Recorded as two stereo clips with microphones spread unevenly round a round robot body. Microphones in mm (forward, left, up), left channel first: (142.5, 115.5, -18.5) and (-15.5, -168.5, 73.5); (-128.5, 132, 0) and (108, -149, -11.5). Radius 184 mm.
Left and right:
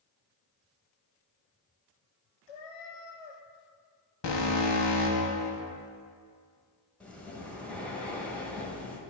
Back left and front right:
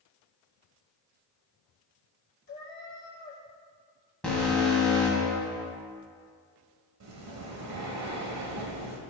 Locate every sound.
2.5 s a cat meowing: 70° left, 0.8 m
4.2 s an alarm: 40° left, 1.3 m
7.0 s breathing: 15° right, 1.1 m